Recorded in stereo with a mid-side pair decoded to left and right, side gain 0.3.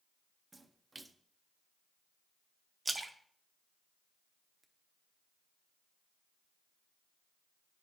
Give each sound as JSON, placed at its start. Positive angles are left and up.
{"t": 0.5, "sound": "a splash", "azimuth_deg": -30, "distance_m": 0.7}
{"t": 2.9, "sound": "a splash", "azimuth_deg": -40, "distance_m": 0.9}